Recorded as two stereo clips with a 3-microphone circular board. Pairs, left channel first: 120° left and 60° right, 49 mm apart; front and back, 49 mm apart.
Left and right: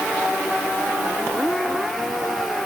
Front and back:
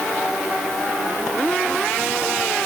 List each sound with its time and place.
Only background noise.